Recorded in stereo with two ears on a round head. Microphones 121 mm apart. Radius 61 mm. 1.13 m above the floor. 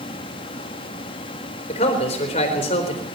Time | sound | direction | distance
1.7 | a man speaking | 50° left (ahead or behind) | 4 m